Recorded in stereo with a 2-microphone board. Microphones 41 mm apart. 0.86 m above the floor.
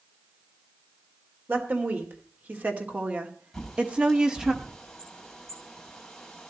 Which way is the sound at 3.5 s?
5° left (ahead or behind).